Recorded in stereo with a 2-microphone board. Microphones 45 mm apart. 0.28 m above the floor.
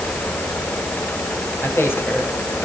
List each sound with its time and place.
1.6 s a man speaking: 55° left (ahead or behind), 8 m; by 2.6 s 60° left (ahead or behind), 8.5 m